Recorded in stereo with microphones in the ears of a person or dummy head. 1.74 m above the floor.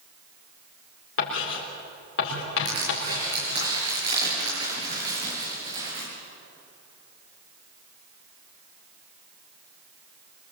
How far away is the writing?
About 4 m.